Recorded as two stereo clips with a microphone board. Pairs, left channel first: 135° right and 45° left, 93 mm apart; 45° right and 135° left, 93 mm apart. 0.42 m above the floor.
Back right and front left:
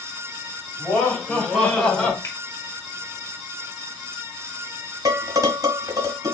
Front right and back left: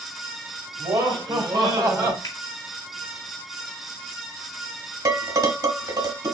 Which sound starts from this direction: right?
A finger snap, at 2.2 s.